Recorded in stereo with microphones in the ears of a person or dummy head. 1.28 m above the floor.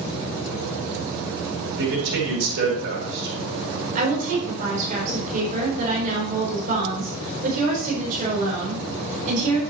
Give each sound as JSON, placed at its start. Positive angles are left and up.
{"t": 1.8, "sound": "a man speaking", "side_deg": -70, "distance_m": 4.0}
{"t": 4.0, "sound": "a woman speaking", "side_deg": -50, "distance_m": 4.0}